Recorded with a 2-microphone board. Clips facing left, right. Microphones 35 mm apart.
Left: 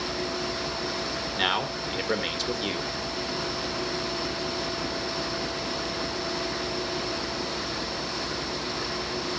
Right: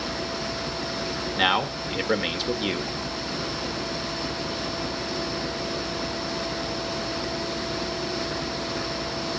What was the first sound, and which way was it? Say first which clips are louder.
A man speaking: right 4 dB; 10° right (ahead or behind).